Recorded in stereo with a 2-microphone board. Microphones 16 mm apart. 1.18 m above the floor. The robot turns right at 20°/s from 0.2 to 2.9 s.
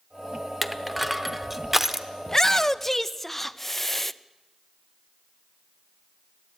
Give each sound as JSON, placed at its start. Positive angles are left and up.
{"t": 0.6, "sound": "crushing", "side_deg": 0, "distance_m": 0.9}
{"t": 2.3, "sound": "a shout", "side_deg": 25, "distance_m": 0.6}